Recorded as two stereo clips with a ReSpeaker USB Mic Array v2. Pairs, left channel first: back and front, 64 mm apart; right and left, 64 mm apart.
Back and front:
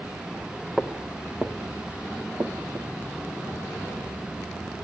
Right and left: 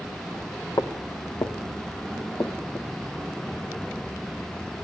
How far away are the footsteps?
About 2.5 m.